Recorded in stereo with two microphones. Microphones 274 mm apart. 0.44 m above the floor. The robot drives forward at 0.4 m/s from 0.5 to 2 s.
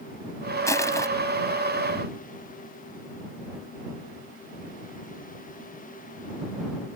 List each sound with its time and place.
0.7 s crushing: 10° left (ahead or behind)